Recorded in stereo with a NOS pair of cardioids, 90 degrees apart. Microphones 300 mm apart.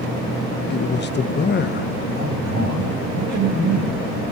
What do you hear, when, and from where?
0.7 s a man speaking: 35° left, 1.0 m
2.1 s a man speaking: 60° right, 9.5 m